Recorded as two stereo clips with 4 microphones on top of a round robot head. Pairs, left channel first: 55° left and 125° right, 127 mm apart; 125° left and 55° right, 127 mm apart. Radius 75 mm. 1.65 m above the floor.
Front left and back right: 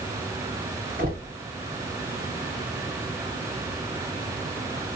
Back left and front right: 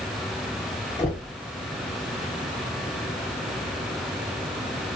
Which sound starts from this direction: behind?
Knocking, at 1.0 s.